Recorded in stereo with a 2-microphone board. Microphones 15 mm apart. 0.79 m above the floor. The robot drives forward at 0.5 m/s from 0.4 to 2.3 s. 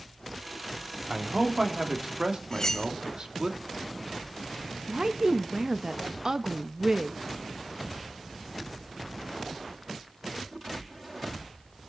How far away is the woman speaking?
About 0.5 m.